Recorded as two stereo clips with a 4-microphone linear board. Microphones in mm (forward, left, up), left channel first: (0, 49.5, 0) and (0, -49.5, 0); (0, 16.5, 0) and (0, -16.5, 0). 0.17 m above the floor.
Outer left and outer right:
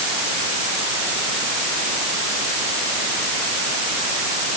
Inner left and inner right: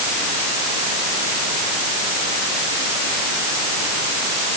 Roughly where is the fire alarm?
No fire alarm in this recording.